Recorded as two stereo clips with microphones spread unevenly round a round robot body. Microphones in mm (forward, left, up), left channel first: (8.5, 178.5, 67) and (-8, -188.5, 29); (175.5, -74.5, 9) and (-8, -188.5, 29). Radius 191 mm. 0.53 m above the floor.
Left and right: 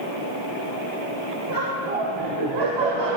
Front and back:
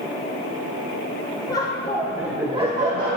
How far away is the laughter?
About 2 m.